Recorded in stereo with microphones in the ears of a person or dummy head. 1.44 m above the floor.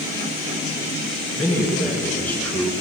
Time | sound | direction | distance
1.4 | a man speaking | 10° left (ahead or behind) | 2.5 m